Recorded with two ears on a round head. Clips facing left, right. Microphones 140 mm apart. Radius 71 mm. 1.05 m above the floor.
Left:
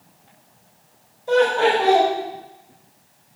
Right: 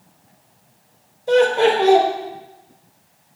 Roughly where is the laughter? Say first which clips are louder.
Right 2 dB; right.